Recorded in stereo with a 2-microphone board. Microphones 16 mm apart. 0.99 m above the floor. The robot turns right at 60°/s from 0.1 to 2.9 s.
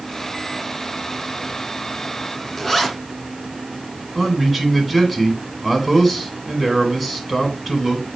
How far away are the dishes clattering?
I don't hear dishes clattering.